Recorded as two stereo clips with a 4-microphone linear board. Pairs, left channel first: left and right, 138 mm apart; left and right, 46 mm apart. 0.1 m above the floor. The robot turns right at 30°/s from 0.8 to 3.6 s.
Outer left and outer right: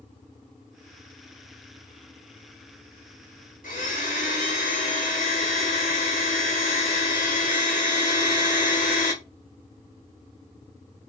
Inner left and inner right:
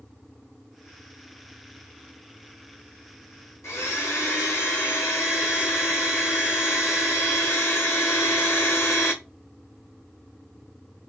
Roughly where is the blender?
Left.